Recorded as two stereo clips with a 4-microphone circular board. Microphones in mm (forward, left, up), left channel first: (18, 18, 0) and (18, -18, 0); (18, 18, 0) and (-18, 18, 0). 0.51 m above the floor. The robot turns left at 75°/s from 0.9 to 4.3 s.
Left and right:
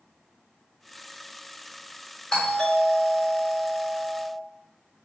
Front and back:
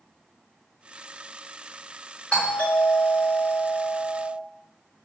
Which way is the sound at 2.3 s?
40° left.